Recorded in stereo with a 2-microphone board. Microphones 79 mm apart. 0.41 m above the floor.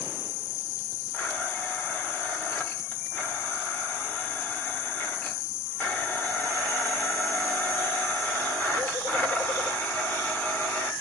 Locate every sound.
1.1 s a blender: 25° left (ahead or behind), 1.3 m